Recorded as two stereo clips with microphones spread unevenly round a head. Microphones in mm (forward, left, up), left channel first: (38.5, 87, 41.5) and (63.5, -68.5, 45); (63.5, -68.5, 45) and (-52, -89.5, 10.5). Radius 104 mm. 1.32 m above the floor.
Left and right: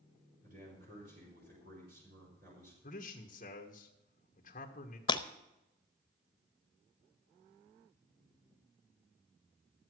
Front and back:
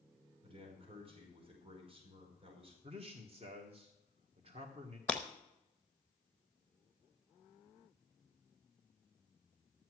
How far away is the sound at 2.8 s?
About 1.4 m.